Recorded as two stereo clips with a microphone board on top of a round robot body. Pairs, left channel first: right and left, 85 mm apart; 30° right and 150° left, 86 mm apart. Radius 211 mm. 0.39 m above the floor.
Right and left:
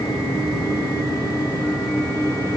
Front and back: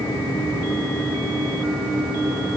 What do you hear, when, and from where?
Only background noise.